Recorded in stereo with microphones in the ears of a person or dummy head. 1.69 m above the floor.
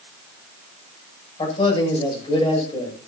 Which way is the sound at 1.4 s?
30° left (ahead or behind).